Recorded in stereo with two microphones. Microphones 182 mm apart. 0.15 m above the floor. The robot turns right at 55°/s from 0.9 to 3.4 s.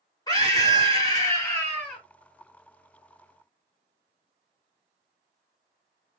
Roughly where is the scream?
Left.